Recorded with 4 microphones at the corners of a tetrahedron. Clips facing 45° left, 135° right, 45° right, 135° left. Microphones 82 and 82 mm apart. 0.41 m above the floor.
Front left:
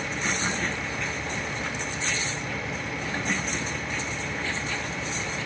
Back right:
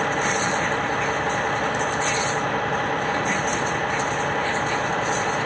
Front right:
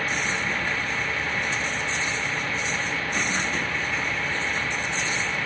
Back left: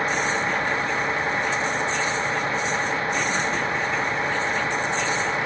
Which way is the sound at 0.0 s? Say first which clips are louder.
Back right 7 dB, back left 4 dB; 165° right.